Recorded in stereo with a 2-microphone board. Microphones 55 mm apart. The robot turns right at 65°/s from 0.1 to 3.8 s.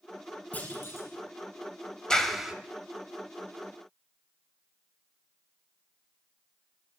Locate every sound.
0.5 s a clunk: 25° left, 4.5 m; by 1.1 s 60° left, 4.5 m
2.1 s a clap: 15° left (ahead or behind), 1.6 m; by 2.5 s 10° right (ahead or behind), 1.6 m